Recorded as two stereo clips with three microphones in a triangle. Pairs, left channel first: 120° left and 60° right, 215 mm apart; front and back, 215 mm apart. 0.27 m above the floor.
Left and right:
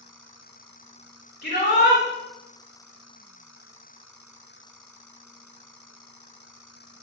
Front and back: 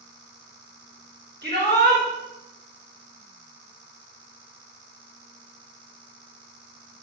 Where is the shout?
155° left, 3 m.